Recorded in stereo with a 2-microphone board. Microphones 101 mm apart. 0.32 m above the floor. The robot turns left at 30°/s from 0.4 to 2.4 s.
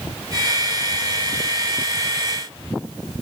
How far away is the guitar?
I don't hear a guitar.